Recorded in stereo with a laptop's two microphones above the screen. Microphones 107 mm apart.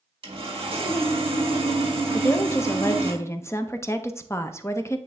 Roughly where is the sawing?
Right.